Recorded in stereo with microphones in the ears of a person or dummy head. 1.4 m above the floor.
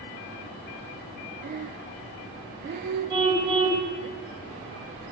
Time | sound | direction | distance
1.4 | breathing | 40° right (ahead or behind) | 0.5 m
3.1 | a car horn | 25° right (ahead or behind) | 3 m